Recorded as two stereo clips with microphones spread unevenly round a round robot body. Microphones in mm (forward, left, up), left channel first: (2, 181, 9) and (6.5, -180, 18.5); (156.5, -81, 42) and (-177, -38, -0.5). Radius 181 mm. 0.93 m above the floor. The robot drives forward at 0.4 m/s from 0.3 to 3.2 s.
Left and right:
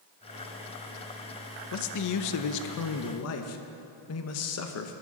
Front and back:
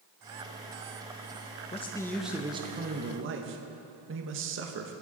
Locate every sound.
1.7 s a man speaking: 65° left, 0.6 m; by 4.9 s 130° left, 0.7 m